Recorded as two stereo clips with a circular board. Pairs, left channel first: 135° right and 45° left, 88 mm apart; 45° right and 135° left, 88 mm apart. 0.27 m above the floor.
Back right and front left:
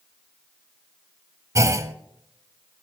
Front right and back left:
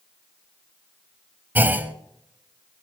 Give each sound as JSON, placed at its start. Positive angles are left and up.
{"t": 1.6, "sound": "a clunk", "azimuth_deg": 75, "distance_m": 0.9}